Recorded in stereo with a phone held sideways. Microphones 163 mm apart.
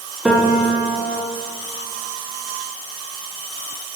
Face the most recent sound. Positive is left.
turn(degrees=-5)  # may be behind; listen again after turning